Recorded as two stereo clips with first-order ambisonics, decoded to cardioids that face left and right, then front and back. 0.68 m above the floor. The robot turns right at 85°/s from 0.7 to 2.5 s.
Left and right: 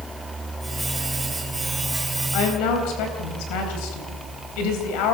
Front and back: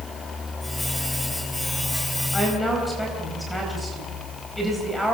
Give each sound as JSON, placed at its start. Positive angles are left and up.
{"t": 2.3, "sound": "a woman speaking", "azimuth_deg": 70, "distance_m": 4.0}